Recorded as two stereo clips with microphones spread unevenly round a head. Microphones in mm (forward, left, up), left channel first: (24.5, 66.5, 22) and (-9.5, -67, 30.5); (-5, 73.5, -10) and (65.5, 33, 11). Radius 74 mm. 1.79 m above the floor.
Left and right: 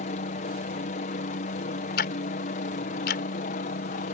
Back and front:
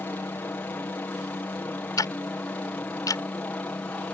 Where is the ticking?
105° left.